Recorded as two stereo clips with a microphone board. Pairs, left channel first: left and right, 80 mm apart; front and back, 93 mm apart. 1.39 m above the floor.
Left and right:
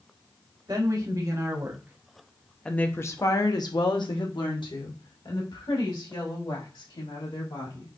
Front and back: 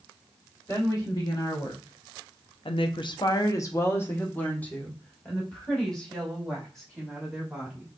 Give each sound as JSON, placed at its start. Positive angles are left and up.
{"t": 0.7, "sound": "a woman speaking", "azimuth_deg": -50, "distance_m": 1.5}